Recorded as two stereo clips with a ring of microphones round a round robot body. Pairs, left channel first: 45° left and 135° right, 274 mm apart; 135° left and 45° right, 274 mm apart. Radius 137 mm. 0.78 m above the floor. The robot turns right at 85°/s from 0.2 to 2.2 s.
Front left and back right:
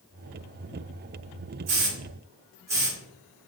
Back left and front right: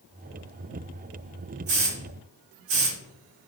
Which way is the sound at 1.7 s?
100° right.